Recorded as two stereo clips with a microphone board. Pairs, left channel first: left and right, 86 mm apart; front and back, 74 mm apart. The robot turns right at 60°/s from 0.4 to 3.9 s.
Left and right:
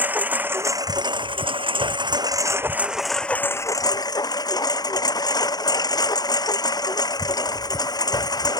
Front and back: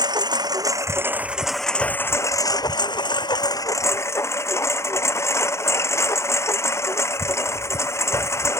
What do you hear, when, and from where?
0.0 s a lawn mower: 160° right; by 8.6 s 50° left